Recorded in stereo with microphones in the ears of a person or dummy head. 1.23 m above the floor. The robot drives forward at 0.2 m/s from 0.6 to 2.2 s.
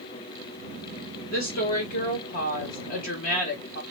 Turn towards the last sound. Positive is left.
turn(degrees=40)  # may be behind; listen again after turning